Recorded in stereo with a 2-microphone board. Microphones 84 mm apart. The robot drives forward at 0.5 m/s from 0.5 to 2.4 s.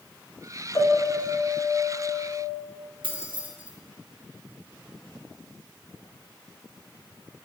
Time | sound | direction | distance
0.8 | a piano | 50° left (ahead or behind) | 0.9 m
3.0 | keys jangling | 75° right (ahead or behind) | 1.0 m